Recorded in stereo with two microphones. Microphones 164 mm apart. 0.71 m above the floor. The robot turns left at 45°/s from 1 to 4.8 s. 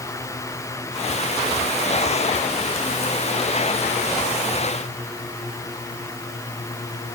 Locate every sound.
Only background noise.